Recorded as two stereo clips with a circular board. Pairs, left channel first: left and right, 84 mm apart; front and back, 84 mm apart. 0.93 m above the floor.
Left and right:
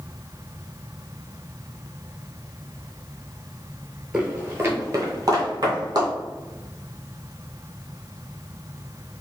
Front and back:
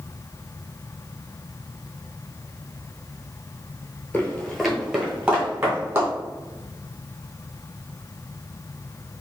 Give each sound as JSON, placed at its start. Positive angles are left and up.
{"t": 4.1, "sound": "footsteps", "azimuth_deg": -30, "distance_m": 0.9}